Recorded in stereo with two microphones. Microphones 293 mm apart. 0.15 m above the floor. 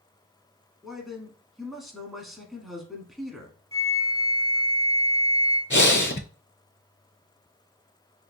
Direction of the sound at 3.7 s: 20° right (ahead or behind).